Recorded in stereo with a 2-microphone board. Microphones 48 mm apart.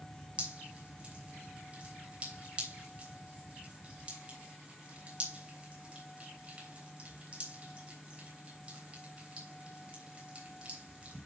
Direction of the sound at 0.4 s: 25° right (ahead or behind).